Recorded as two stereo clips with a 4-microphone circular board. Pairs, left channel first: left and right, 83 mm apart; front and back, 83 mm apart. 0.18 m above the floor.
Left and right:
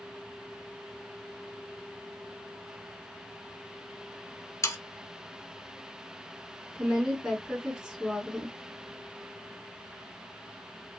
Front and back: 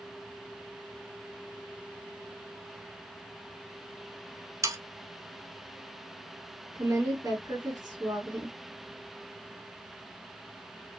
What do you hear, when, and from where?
4.6 s sawing: 135° left, 0.6 m
6.8 s a woman speaking: 170° right, 2.5 m